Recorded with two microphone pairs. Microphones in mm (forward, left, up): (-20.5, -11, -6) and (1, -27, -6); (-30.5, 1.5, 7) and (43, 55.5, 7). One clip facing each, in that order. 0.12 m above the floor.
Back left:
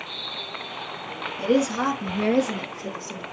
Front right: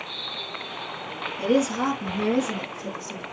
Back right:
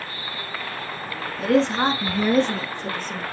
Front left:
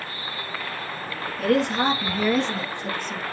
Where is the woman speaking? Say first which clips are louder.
Back left 1 dB, back right 2 dB; 165° right, 1.4 m; by 3.2 s 175° left, 3 m.